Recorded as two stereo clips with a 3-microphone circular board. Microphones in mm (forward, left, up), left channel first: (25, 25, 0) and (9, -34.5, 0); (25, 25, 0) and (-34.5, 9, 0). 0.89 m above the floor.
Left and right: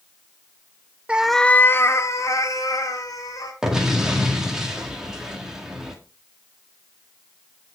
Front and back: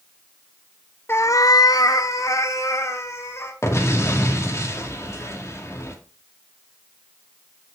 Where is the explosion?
25° right, 2 m.